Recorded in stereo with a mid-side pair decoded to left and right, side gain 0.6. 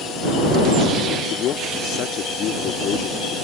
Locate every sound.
1.3 s a man speaking: 55° left